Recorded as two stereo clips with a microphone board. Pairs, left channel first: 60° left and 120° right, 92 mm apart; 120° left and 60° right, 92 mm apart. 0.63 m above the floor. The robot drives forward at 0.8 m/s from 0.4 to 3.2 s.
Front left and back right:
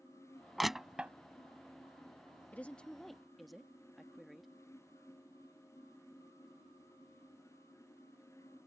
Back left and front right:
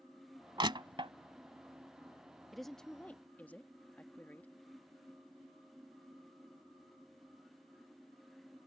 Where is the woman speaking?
30° left; by 4.5 s 150° left.